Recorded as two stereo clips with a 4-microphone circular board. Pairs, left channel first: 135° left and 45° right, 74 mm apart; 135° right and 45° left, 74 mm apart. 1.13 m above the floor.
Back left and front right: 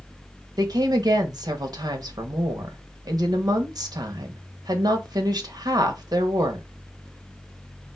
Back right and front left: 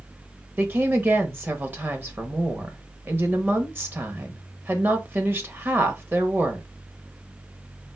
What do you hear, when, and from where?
0.6 s a woman speaking: 15° right, 1.3 m